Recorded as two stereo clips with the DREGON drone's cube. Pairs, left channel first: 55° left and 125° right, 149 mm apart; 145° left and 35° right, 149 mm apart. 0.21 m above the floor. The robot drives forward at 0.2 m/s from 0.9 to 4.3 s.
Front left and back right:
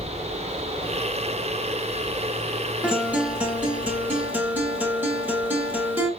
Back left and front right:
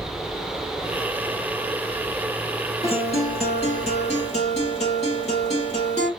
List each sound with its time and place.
2.8 s a guitar: 155° left, 1.5 m; by 6.1 s 160° left, 1.7 m